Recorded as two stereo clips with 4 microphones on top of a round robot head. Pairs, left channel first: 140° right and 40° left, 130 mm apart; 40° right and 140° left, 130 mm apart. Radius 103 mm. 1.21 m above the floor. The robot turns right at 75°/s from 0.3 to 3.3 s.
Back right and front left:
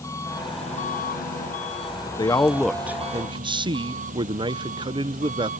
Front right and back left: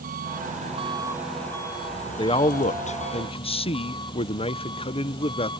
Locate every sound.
0.0 s an engine running: 150° left; by 5.6 s 15° left
2.2 s a man speaking: 90° right; by 5.5 s 5° right